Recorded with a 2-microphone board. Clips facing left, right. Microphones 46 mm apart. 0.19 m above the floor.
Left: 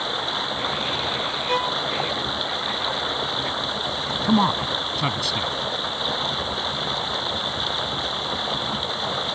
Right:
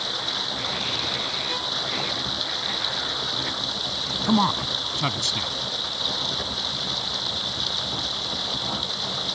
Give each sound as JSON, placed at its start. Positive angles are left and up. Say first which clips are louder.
{"t": 0.0, "sound": "running water", "louder": "left 4 dB", "side_deg": 25}
{"t": 1.5, "sound": "a violin", "louder": "left 6 dB", "side_deg": 40}
{"t": 4.2, "sound": "a man speaking", "louder": "left 2 dB", "side_deg": 0}